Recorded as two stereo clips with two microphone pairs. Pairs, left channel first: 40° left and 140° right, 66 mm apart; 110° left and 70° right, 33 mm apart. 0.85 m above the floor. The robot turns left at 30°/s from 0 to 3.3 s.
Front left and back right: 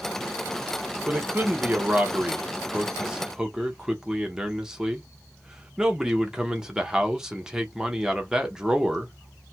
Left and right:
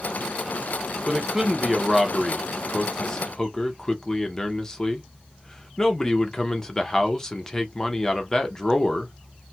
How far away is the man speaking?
About 0.7 m.